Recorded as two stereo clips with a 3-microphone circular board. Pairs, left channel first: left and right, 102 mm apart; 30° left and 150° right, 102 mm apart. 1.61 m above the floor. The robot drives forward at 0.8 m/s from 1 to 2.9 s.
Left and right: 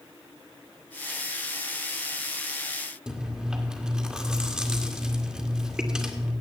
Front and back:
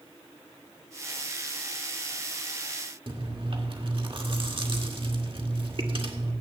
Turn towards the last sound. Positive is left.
turn(degrees=-170)